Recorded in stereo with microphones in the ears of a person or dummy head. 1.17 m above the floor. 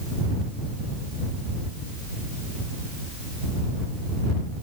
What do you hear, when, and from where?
Only background noise.